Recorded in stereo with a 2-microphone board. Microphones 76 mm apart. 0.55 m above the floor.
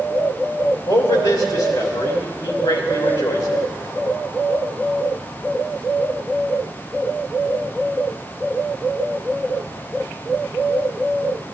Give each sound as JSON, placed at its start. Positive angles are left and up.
{"t": 0.9, "sound": "a man speaking", "side_deg": 60, "distance_m": 2.0}